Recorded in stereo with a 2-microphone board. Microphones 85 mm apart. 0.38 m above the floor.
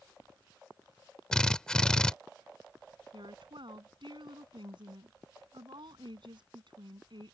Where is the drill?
10° left (ahead or behind).